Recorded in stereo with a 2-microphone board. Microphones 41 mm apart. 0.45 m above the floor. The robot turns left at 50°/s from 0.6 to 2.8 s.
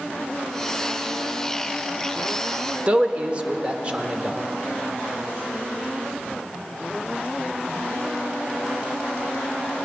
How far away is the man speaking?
About 0.9 m.